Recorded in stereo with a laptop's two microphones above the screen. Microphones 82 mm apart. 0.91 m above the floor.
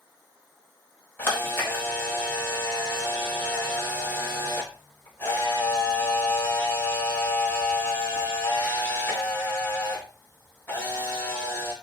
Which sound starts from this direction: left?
A camera shutter, at 1.2 s.